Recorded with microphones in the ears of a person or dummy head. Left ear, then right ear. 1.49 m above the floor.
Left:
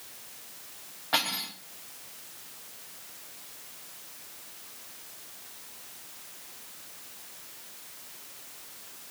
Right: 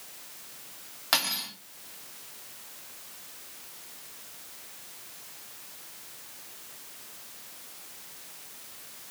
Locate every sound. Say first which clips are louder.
1.1 s cutlery clinking: right 1 dB; 75° right (ahead or behind), 2.5 m